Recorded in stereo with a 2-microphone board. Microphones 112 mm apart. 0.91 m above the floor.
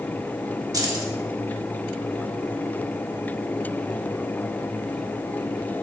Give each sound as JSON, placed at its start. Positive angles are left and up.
{"t": 0.7, "sound": "keys jangling", "side_deg": -35, "distance_m": 1.1}